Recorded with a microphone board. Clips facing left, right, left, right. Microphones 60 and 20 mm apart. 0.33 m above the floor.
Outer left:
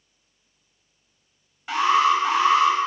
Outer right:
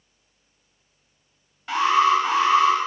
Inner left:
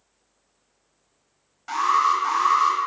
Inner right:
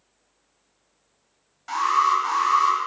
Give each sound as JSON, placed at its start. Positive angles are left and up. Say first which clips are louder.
{"t": 1.7, "sound": "an alarm", "louder": "outer right 1 dB, even", "side_deg": 5, "distance_m": 3.0}